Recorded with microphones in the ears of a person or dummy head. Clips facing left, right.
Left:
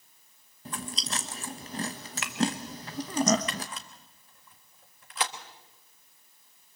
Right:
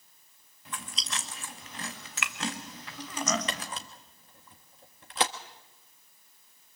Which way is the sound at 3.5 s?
30° right (ahead or behind).